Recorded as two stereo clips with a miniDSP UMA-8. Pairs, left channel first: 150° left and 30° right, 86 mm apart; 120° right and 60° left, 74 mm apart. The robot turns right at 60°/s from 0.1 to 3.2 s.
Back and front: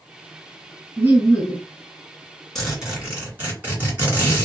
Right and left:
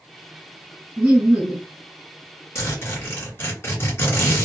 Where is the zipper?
125° right, 1.9 m; by 4.4 s 85° right, 1.9 m.